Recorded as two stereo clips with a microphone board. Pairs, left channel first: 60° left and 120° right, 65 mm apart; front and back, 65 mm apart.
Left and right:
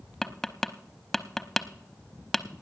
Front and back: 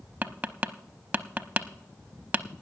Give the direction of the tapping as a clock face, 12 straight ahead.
7 o'clock.